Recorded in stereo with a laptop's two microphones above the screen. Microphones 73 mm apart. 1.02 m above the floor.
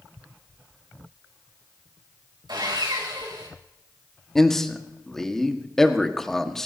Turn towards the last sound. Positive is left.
turn(degrees=5)  # may be behind; listen again after turning